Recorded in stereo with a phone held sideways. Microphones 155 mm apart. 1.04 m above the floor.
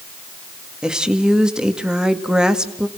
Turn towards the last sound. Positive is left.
turn(degrees=-5)  # may be behind; listen again after turning